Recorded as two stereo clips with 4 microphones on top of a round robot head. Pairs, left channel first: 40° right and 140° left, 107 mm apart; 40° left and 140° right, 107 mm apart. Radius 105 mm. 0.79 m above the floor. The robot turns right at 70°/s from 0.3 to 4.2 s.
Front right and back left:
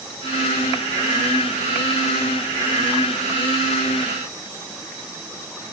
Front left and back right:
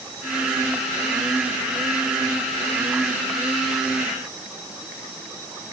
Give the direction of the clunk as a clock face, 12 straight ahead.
No clunk in this recording.